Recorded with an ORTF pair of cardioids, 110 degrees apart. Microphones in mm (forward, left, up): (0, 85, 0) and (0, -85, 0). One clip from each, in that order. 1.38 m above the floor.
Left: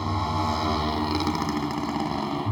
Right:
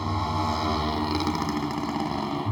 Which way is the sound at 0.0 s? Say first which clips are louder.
Left 1 dB; 10° left.